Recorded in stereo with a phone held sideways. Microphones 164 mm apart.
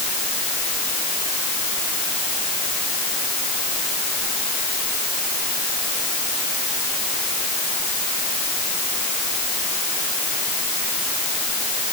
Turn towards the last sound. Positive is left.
No sound to turn to.